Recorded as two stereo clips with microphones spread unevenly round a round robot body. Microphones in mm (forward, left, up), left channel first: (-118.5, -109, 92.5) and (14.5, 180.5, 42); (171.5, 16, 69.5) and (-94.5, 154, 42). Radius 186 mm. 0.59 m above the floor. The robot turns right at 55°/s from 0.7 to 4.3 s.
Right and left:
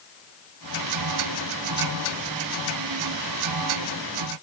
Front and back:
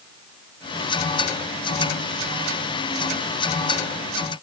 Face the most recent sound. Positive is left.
No sound to turn to.